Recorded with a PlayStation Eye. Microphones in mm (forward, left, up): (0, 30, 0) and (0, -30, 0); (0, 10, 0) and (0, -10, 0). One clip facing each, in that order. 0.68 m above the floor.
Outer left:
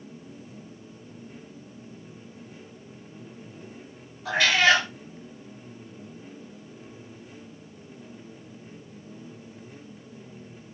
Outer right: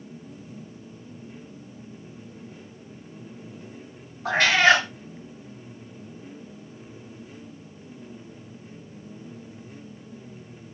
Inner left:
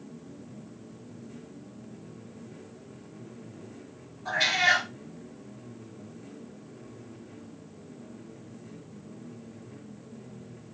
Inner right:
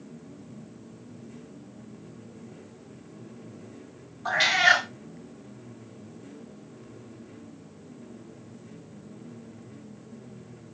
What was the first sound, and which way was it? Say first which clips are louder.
A cat meowing: outer right 2 dB, inner right 3 dB; 55° right (ahead or behind).